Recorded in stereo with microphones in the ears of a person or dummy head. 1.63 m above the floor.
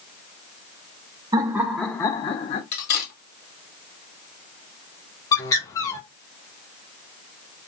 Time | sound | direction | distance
1.3 | laughter | 20° right (ahead or behind) | 0.6 m
2.7 | cutlery clinking | 45° left (ahead or behind) | 1.5 m
5.3 | a bird | 20° left (ahead or behind) | 0.6 m